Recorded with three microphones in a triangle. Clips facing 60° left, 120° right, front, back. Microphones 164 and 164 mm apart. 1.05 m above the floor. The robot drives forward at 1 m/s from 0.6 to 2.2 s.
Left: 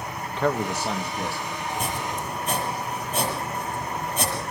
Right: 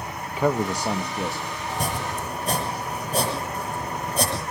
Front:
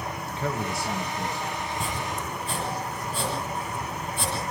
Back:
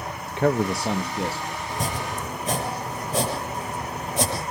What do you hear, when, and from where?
0.4 s a man speaking: 160° left, 0.7 m; by 1.6 s 170° left, 1.7 m
1.7 s chopping: 175° right, 7 m